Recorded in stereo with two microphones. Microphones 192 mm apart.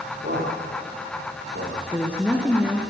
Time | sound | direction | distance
0.2 | a man speaking | 65° right (ahead or behind) | 10 m
1.9 | a woman speaking | 5° right (ahead or behind) | 2 m